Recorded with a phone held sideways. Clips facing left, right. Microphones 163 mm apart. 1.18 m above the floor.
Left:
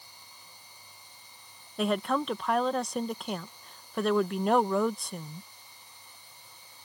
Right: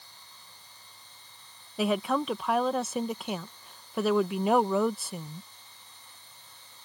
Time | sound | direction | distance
0.0 | a machine running | 10° left (ahead or behind) | ?
1.8 | a woman speaking | 5° right (ahead or behind) | ?